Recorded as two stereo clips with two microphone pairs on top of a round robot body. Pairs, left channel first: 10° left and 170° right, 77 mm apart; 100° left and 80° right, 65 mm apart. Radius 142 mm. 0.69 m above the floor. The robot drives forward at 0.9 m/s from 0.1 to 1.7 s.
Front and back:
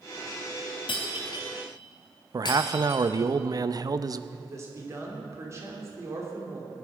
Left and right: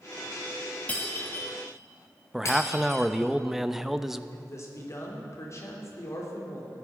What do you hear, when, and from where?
0.9 s breaking glass: 30° left, 1.6 m; by 3.1 s 50° left, 1.1 m
2.3 s a man speaking: 170° right, 0.7 m
4.3 s a man speaking: 140° left, 3 m